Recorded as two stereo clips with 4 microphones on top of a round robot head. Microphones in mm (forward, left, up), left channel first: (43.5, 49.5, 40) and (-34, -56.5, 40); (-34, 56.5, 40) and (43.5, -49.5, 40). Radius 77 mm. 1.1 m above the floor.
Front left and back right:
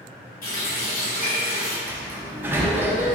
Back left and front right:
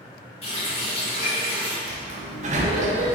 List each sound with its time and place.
0.4 s a running tap: 80° left, 1.9 m
1.9 s a sliding door: 55° right, 0.6 m